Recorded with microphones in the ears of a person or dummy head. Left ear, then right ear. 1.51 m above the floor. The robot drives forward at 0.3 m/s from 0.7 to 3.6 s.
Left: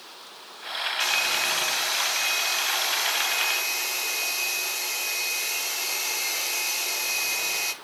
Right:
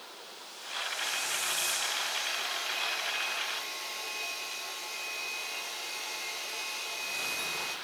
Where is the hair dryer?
70° left (ahead or behind), 1.6 m; by 7.7 s 80° left, 1.5 m.